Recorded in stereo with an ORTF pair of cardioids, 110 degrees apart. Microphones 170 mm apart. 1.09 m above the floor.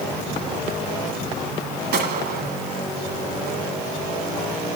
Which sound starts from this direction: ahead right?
A gunshot, at 1.9 s.